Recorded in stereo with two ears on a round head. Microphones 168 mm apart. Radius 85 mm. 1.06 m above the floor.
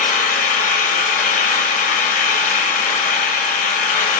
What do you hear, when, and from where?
0.0 s an engine running: 40° left (ahead or behind), 3 m